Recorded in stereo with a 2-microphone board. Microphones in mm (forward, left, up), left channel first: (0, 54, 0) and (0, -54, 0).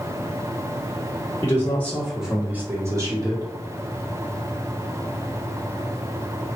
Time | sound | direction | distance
1.4 | a man speaking | 30° left (ahead or behind) | 1.0 m